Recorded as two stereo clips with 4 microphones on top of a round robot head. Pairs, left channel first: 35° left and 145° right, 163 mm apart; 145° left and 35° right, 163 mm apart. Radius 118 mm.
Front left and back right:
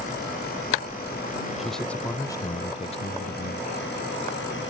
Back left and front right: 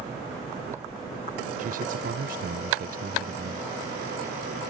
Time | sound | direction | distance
1.6 | a man speaking | 55° right | ?